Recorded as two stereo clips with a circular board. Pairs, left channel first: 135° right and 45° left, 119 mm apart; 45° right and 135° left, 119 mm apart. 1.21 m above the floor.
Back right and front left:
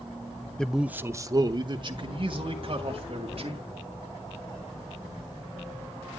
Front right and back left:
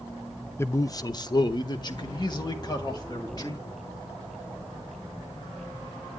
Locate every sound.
0.6 s a man speaking: 65° right, 0.5 m; by 3.6 s 10° left, 2 m